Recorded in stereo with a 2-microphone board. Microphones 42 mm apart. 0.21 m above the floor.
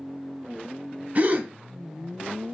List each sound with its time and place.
1.1 s a gasp: 40° right (ahead or behind), 0.8 m